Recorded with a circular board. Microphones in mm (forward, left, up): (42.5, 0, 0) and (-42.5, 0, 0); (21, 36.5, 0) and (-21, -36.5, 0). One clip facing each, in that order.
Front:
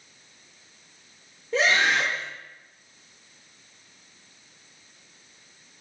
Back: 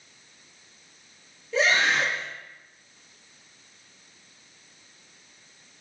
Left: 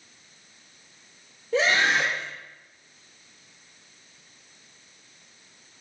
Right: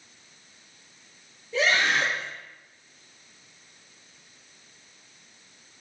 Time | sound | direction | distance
1.5 | a scream | 45° left | 5.5 m